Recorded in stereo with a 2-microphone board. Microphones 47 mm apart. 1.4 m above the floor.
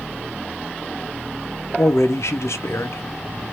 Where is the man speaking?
75° left (ahead or behind), 0.8 m.